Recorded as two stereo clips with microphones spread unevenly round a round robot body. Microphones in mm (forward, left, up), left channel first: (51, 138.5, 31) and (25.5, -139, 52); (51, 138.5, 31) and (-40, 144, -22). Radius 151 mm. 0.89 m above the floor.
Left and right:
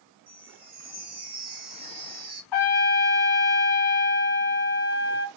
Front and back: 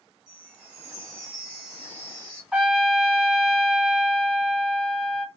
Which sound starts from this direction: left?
A trumpet, at 2.5 s.